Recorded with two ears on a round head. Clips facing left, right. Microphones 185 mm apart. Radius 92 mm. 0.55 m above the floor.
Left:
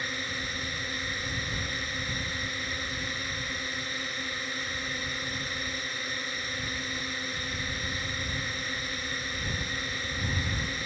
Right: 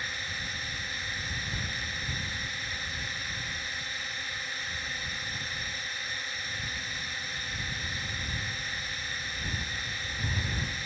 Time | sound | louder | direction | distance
0.0 | a drone | left 7 dB | 65° left (ahead or behind) | ?